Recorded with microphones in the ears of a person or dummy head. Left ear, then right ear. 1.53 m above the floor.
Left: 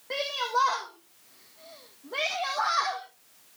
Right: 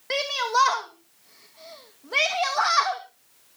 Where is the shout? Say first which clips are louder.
Right 4 dB; 70° right (ahead or behind), 1.9 m.